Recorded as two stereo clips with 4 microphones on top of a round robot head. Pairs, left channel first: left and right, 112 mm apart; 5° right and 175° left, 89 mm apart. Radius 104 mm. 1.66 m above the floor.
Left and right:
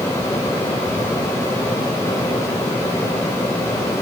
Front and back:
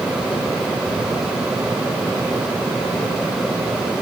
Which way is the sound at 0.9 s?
35° right.